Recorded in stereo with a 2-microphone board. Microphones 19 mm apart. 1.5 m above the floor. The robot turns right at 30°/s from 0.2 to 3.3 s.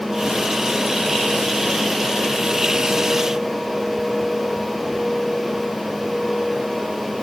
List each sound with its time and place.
Only background noise.